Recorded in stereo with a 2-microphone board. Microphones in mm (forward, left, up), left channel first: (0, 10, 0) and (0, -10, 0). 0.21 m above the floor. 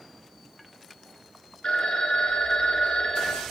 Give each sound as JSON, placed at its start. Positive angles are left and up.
{"t": 1.6, "sound": "a phone ringing", "side_deg": 50, "distance_m": 1.6}